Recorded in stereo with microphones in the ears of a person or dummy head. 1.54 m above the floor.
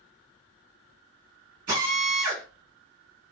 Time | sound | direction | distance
1.7 | a drill | 15° right (ahead or behind) | 1.3 m